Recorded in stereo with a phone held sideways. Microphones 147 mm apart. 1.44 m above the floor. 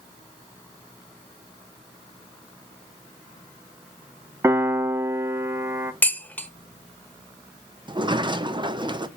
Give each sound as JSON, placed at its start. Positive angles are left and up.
{"t": 4.4, "sound": "a piano", "side_deg": -15, "distance_m": 0.5}
{"t": 6.0, "sound": "dishes clattering", "side_deg": 10, "distance_m": 1.0}
{"t": 7.9, "sound": "a sliding door", "side_deg": -30, "distance_m": 0.5}